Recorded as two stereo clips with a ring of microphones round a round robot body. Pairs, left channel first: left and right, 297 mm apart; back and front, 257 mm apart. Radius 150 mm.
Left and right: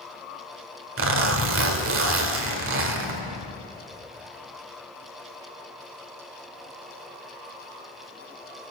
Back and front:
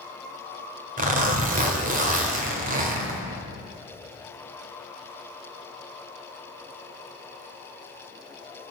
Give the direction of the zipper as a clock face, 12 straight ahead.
2 o'clock.